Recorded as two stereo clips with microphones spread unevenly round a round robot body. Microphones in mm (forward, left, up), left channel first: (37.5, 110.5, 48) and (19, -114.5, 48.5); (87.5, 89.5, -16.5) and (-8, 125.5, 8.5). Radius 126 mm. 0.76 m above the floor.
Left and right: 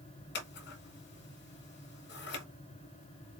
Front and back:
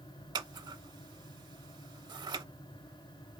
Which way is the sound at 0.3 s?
130° left.